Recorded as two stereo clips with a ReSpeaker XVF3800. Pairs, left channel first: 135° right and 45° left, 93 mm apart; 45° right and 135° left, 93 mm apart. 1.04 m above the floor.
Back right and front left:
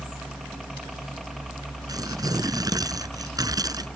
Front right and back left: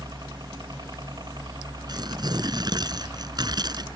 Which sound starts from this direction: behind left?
A helicopter, at 0.0 s.